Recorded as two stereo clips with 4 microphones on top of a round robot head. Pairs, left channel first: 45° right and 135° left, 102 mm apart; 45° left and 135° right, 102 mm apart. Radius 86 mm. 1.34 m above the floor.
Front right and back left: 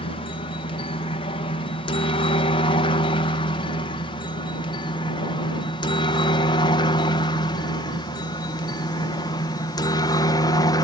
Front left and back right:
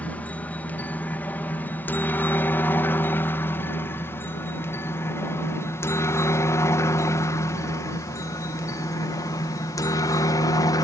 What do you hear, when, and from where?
0.0 s a helicopter: 30° right; by 10.8 s straight ahead